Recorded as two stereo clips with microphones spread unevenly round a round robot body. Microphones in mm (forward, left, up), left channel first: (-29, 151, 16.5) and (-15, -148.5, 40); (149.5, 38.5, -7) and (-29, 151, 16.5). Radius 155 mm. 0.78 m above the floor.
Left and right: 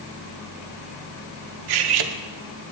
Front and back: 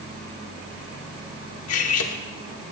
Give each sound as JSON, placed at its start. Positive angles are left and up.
{"t": 1.7, "sound": "cutlery clinking", "azimuth_deg": -70, "distance_m": 1.0}